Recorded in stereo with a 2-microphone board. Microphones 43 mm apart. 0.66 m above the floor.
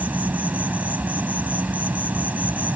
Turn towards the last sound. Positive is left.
turn(degrees=-40)  # may be behind; listen again after turning